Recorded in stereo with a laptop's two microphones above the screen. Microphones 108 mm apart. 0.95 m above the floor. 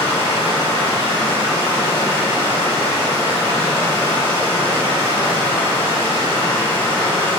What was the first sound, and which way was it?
Running water, 45° right (ahead or behind).